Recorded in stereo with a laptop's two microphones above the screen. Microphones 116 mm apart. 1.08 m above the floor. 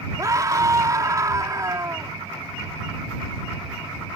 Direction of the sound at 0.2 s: 30° right (ahead or behind).